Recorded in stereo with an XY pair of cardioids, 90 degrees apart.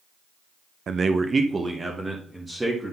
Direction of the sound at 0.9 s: 55° right.